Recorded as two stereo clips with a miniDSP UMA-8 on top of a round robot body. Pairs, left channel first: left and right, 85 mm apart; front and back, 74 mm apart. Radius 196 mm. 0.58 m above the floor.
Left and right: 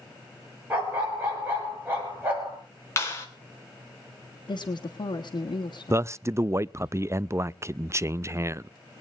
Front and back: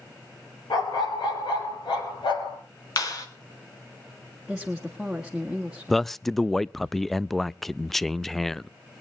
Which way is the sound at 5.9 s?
85° right.